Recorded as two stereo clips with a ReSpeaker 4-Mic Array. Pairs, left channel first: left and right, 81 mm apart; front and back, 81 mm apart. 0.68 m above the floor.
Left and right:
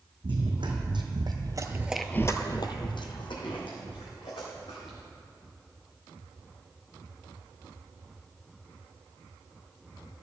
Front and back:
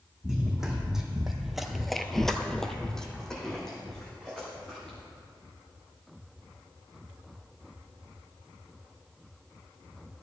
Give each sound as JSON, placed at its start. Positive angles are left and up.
{"t": 0.2, "sound": "running footsteps", "azimuth_deg": -95, "distance_m": 2.5}